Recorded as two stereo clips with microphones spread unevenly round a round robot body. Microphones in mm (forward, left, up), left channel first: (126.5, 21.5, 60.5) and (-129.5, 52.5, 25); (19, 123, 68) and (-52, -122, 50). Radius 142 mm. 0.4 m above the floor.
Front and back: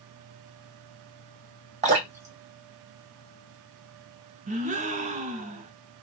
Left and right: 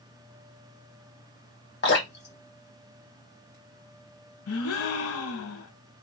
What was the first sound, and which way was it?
Dripping, 120° left.